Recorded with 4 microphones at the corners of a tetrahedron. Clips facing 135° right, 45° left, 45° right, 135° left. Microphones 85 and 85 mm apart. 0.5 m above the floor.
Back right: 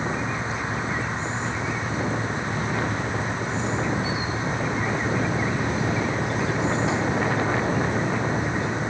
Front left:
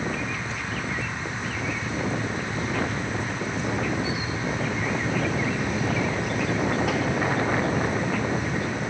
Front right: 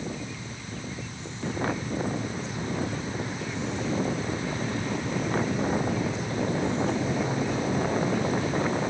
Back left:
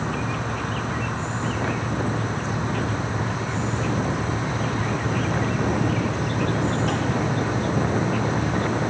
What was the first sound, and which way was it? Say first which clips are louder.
An insect: back right 2 dB, back left 9 dB; 160° left.